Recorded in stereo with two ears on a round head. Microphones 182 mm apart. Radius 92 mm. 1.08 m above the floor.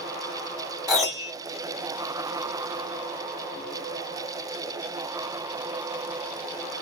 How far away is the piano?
About 1.2 m.